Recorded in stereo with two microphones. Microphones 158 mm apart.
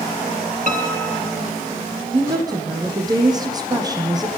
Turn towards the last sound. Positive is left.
turn(degrees=-25)  # may be behind; listen again after turning